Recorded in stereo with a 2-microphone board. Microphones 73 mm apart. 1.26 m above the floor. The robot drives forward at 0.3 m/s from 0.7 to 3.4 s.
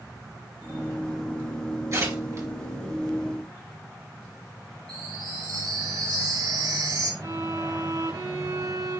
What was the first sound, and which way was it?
Tearing paper, 40° right (ahead or behind).